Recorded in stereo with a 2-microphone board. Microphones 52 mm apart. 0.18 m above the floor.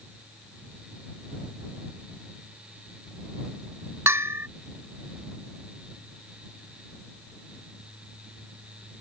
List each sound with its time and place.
4.1 s a bell: 55° right (ahead or behind)